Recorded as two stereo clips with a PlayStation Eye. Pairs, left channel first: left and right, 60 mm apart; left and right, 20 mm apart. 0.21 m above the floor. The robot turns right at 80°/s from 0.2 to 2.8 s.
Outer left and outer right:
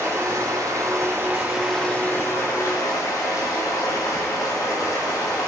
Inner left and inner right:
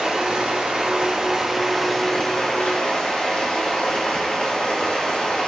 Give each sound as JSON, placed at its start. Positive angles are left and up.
{"t": 0.0, "sound": "running water", "azimuth_deg": -120, "distance_m": 4.0}